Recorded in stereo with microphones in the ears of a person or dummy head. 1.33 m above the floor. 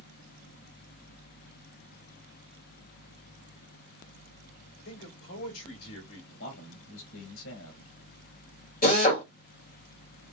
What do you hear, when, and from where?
4.8 s a man speaking: 75° left (ahead or behind), 1.8 m
6.3 s a man speaking: 65° left (ahead or behind), 1.8 m
8.8 s a drill: 40° left (ahead or behind), 2.0 m